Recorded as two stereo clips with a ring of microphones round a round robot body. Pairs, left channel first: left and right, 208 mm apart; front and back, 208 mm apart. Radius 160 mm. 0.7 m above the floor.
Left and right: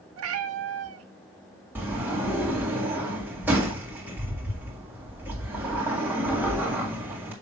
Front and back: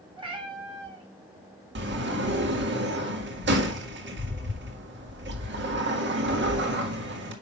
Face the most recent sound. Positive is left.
turn(degrees=-170)